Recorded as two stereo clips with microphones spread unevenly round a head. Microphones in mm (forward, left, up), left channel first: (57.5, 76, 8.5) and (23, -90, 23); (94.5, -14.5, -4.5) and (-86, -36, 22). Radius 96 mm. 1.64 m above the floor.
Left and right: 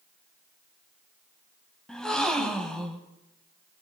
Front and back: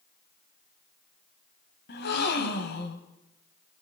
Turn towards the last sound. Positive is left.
turn(degrees=-10)